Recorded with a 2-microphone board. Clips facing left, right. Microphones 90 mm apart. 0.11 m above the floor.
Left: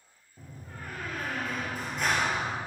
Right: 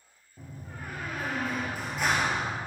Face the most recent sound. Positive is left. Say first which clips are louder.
# right 2 dB
turn(degrees=-5)  # may be behind; listen again after turning